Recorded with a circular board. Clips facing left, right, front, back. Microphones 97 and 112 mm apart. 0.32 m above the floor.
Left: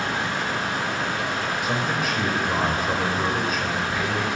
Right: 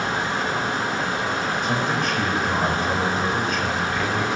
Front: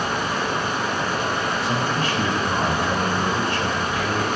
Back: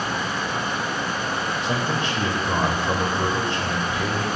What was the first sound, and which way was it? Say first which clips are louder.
Running water: right 2 dB, front 2 dB; 25° right.